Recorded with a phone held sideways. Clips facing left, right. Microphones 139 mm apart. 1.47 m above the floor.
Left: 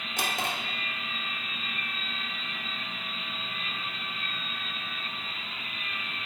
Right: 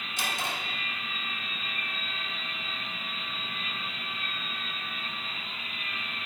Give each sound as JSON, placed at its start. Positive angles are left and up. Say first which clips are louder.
{"t": 0.2, "sound": "a drawer", "louder": "left 2 dB", "side_deg": 60, "distance_m": 3.0}